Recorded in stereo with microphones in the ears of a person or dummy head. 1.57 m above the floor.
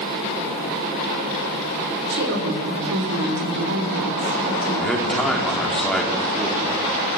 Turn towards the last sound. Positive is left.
turn(degrees=0)  # may be behind; listen again after turning